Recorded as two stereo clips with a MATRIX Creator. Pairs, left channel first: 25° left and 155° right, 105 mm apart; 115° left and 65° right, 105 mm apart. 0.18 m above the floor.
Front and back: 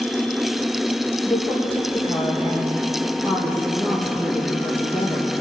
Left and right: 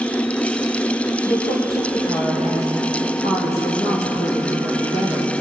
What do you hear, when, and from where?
1.2 s a woman speaking: 105° left, 4.5 m